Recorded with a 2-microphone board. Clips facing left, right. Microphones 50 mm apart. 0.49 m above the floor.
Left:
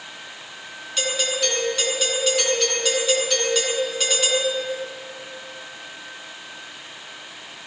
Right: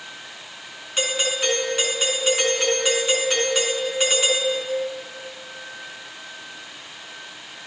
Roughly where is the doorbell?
Right.